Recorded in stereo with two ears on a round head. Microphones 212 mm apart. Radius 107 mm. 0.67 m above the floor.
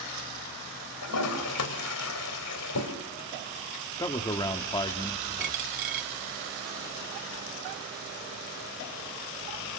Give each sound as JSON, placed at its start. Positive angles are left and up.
{"t": 1.0, "sound": "a toilet flushing", "side_deg": 80, "distance_m": 2.5}
{"t": 4.0, "sound": "a man speaking", "side_deg": 15, "distance_m": 1.4}
{"t": 5.4, "sound": "a dropped coin", "side_deg": -35, "distance_m": 0.8}